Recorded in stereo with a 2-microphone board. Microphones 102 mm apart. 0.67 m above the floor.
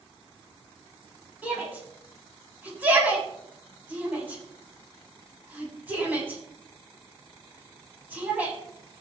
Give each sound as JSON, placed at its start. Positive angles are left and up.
{"t": 1.4, "sound": "a shout", "side_deg": -15, "distance_m": 6.0}